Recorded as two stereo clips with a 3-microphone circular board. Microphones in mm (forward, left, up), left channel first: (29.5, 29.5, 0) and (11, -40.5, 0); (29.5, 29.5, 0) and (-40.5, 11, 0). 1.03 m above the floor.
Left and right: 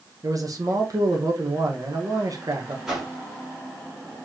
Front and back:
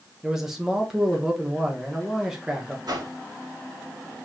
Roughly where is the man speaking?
Right.